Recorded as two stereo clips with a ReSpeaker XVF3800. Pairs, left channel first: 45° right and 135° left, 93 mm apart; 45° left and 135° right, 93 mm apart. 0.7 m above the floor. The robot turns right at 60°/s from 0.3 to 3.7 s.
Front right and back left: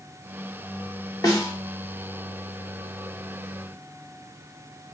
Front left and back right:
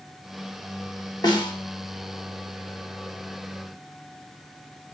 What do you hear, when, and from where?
1.2 s a snare drum: straight ahead, 0.8 m; by 1.5 s 20° left, 0.8 m